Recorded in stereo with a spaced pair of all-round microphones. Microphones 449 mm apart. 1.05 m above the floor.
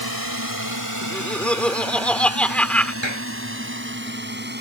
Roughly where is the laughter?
Centre.